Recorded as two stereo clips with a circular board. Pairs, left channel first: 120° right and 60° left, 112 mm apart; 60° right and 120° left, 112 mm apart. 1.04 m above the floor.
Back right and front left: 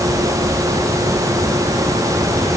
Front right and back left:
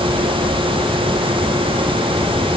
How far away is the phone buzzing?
I don't hear a phone buzzing.